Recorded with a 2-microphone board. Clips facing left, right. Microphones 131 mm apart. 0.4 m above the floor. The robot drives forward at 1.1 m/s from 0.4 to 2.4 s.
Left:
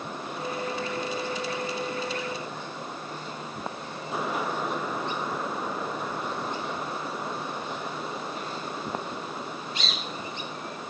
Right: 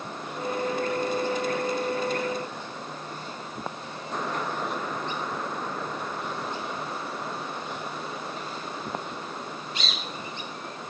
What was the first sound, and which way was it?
Only background noise.